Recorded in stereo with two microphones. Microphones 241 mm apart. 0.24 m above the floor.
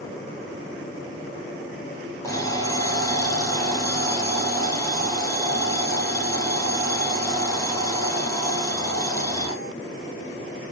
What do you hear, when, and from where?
2.2 s an alarm clock: 15° left (ahead or behind), 4 m